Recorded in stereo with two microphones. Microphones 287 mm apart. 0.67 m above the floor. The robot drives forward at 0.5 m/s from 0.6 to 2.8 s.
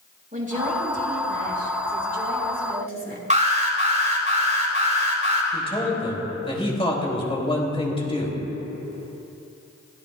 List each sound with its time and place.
0.3 s a woman speaking: 30° right (ahead or behind), 6 m; by 3.2 s 35° right (ahead or behind), 5 m
3.3 s an alarm: 25° right (ahead or behind), 3.5 m
5.5 s a man speaking: 20° left (ahead or behind), 3.5 m